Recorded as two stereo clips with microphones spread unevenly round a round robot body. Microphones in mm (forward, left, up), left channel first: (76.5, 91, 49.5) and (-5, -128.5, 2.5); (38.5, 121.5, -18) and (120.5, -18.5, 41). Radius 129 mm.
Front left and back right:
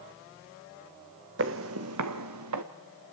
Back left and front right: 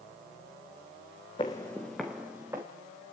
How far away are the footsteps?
About 1.0 m.